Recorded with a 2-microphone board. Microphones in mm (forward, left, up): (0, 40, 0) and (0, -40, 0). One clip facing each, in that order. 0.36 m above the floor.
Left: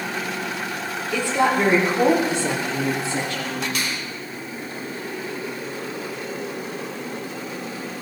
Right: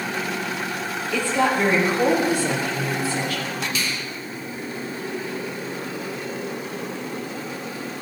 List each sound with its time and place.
1.1 s a woman speaking: 15° left (ahead or behind), 6.5 m; by 3.6 s 35° left (ahead or behind), 9.5 m
3.8 s a finger snap: 65° left (ahead or behind), 2.5 m